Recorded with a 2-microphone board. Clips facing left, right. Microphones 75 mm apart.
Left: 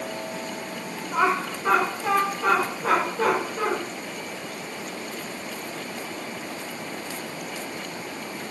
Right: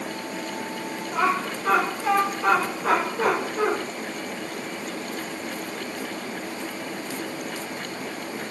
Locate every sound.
1.1 s laughter: 25° left (ahead or behind), 1.9 m; by 3.7 s 20° right (ahead or behind), 2.0 m